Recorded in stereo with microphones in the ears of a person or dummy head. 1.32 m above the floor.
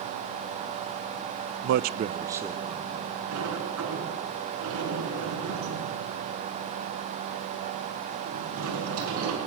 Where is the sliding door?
80° right, 6 m.